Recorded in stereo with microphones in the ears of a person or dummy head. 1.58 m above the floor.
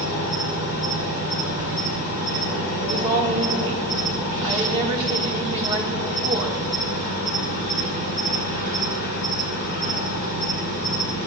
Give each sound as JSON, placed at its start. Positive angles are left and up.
{"t": 0.0, "sound": "an insect", "side_deg": 65, "distance_m": 3.0}
{"t": 2.8, "sound": "a woman speaking", "side_deg": -30, "distance_m": 1.9}